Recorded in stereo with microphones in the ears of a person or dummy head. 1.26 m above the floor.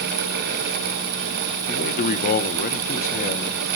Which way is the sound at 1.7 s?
45° left (ahead or behind).